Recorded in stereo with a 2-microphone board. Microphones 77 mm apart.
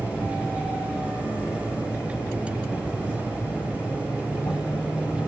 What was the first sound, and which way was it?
An insect, 30° left (ahead or behind).